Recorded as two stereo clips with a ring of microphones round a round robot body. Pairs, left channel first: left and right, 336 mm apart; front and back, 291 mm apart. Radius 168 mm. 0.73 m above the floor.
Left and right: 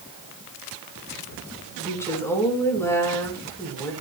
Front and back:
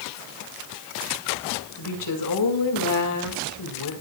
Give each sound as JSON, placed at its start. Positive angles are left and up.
{"t": 1.8, "sound": "a woman speaking", "azimuth_deg": 10, "distance_m": 6.0}